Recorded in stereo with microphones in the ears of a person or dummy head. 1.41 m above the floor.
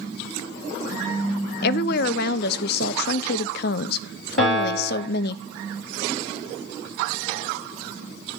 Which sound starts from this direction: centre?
A piano, at 4.4 s.